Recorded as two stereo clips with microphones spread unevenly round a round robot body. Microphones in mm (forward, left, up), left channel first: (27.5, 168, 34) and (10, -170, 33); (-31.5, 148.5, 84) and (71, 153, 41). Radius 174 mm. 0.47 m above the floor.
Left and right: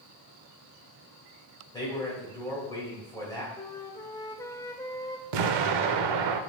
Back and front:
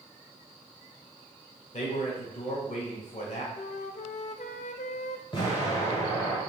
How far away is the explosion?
About 0.7 m.